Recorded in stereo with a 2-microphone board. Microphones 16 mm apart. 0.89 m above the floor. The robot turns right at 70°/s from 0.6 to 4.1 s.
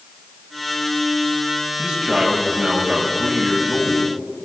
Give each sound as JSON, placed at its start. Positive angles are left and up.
{"t": 1.8, "sound": "a man speaking", "azimuth_deg": -120, "distance_m": 5.5}